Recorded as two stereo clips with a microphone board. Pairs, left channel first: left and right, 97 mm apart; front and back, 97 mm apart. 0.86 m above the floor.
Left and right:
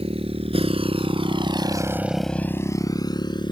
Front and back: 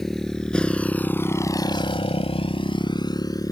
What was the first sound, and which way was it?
A motorcycle, 85° right.